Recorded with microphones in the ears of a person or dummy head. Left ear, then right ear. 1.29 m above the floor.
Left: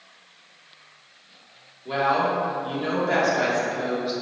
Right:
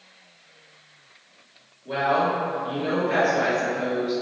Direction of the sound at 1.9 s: 35° left (ahead or behind).